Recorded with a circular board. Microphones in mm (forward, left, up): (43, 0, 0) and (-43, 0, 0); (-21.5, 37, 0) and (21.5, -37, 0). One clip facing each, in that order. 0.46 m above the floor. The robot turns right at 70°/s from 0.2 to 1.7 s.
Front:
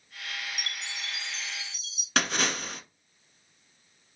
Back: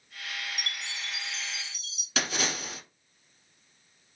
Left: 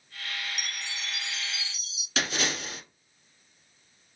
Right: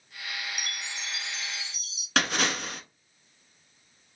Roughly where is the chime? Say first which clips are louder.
Even, even; behind right.